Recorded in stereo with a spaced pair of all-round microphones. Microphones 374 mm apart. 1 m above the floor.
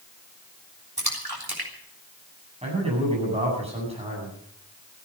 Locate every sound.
1.0 s a splash: 75° right (ahead or behind), 3.5 m
2.6 s a man speaking: 15° right (ahead or behind), 9 m